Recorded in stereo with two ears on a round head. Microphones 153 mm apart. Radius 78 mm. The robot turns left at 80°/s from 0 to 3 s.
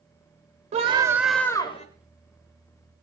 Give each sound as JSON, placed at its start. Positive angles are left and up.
{"t": 0.7, "sound": "a scream", "azimuth_deg": -135, "distance_m": 3.5}